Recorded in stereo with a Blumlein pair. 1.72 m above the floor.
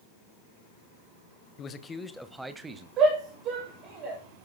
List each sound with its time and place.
1.6 s a man speaking: 30° left, 1.3 m; by 2.9 s 15° right, 1.9 m
3.0 s a shout: 30° right, 9 m